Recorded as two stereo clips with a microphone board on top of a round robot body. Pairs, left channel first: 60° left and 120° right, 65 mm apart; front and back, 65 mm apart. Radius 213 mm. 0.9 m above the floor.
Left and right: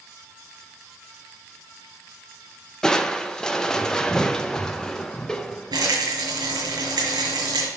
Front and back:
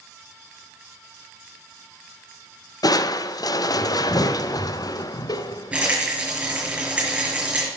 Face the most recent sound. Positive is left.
turn(degrees=-105)